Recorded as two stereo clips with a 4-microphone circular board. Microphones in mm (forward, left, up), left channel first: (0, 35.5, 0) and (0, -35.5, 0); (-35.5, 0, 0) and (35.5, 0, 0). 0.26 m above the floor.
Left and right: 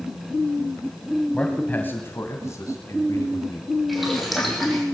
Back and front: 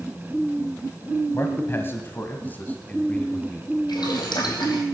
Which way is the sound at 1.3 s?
160° left.